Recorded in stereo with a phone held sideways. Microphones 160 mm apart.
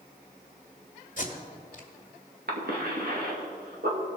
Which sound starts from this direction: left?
Tape being pulled, at 1.2 s.